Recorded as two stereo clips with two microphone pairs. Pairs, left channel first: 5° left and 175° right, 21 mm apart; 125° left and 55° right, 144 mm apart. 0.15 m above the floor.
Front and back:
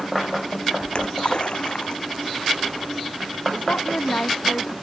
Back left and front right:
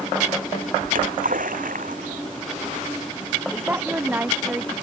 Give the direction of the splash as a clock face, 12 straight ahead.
1 o'clock.